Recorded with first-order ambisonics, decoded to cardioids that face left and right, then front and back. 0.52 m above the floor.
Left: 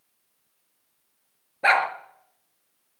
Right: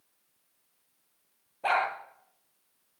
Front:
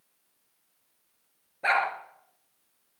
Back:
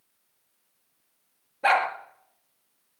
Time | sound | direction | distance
1.6 | a dog barking | 95° left | 2.5 m